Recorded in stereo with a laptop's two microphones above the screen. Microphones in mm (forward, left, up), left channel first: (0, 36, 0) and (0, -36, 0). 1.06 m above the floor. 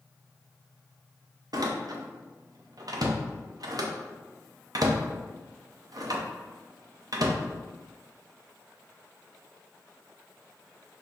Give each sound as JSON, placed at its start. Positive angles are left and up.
{"t": 1.5, "sound": "a door slam", "side_deg": -60, "distance_m": 0.6}